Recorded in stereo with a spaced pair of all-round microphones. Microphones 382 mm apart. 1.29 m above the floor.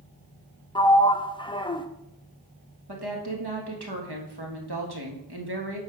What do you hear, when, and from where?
0.8 s a sliding door: 15° left (ahead or behind), 0.5 m
2.9 s a woman speaking: 85° right, 1.8 m